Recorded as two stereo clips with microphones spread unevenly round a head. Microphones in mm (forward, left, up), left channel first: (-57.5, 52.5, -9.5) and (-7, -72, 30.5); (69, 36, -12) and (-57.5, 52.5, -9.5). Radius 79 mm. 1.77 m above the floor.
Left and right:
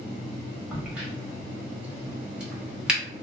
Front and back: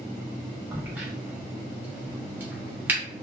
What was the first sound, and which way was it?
A crack, 120° right.